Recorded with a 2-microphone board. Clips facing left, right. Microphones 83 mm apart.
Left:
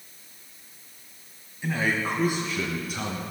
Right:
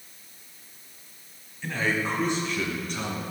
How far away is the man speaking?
About 1.7 m.